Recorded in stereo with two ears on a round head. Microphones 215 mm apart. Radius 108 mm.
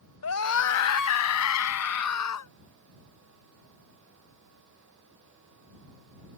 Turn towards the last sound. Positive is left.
turn(degrees=80)